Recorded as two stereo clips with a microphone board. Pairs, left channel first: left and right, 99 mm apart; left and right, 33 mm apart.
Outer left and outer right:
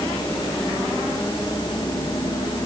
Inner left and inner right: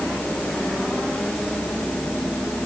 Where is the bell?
No bell in this recording.